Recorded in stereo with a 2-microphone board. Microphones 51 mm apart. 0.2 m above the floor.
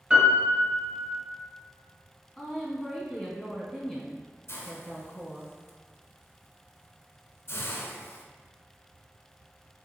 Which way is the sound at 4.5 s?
55° left (ahead or behind).